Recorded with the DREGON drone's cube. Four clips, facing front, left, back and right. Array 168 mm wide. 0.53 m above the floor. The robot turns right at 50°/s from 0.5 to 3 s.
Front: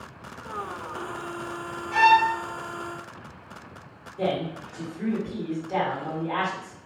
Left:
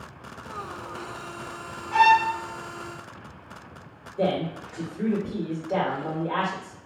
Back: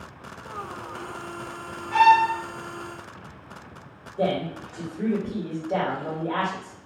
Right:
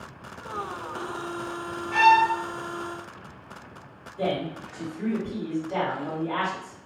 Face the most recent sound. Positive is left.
turn(degrees=125)